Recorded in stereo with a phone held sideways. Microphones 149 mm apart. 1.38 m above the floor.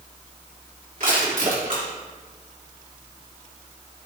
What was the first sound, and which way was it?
Crushing, 65° right (ahead or behind).